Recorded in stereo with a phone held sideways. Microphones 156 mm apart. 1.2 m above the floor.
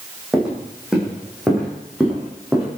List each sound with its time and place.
0.3 s footsteps: 5° right (ahead or behind), 3.5 m